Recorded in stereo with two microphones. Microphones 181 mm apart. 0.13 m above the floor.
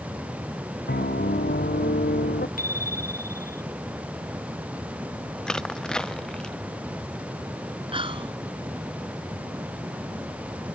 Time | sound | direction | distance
0.9 | a piano | 65° left (ahead or behind) | ?
2.6 | a bicycle bell | 50° left (ahead or behind) | ?
5.5 | crushing | 5° left (ahead or behind) | ?
7.9 | whispering | 30° right (ahead or behind) | ?